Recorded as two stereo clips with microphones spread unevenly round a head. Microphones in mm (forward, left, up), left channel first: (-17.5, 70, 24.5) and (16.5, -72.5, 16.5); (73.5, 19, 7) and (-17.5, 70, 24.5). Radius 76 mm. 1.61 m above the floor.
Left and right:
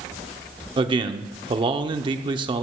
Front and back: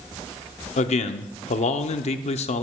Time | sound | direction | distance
0.8 | a man speaking | 15° right | 0.7 m